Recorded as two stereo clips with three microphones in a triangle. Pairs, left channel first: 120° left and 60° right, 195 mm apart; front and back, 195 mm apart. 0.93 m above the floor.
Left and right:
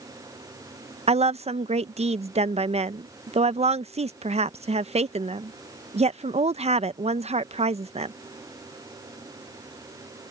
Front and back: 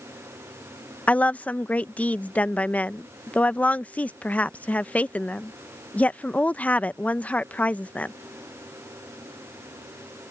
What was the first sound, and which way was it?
A woman speaking, 80° right.